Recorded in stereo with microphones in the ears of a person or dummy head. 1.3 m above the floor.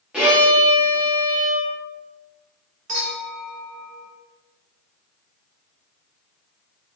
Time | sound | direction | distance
0.1 | a violin | 5° right (ahead or behind) | 1.3 m
2.9 | a clink | 40° right (ahead or behind) | 0.9 m